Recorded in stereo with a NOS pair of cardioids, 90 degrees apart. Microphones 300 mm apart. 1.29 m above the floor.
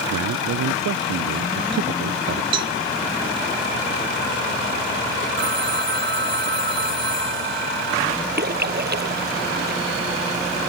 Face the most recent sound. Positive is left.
turn(degrees=-35)